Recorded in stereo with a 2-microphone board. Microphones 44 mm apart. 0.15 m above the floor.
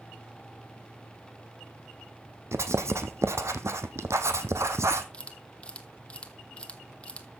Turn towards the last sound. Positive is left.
turn(degrees=25)  # may be behind; listen again after turning